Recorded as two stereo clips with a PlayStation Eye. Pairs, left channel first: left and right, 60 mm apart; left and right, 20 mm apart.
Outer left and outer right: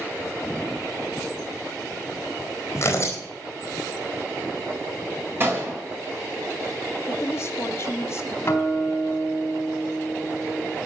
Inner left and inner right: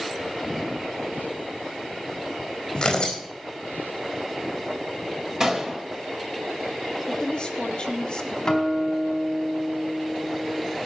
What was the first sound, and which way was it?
Tearing paper, 40° left (ahead or behind).